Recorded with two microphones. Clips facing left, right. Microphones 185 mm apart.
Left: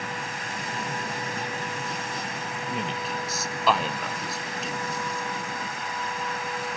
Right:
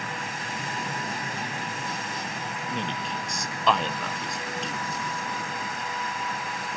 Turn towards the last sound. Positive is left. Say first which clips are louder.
# left 1 dB
turn(degrees=5)  # may be behind; listen again after turning